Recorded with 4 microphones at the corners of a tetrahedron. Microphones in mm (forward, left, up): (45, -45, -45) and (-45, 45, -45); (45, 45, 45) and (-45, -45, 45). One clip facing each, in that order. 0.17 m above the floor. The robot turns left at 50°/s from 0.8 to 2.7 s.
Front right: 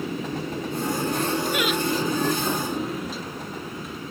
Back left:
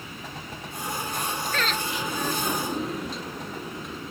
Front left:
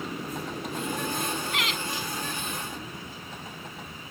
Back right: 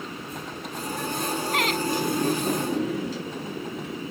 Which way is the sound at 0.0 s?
40° right.